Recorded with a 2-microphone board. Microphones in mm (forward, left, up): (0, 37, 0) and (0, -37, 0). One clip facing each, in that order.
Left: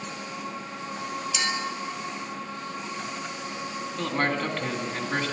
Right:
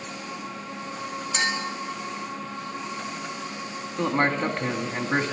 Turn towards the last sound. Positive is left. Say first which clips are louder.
# right 4 dB
turn(degrees=-20)  # may be behind; listen again after turning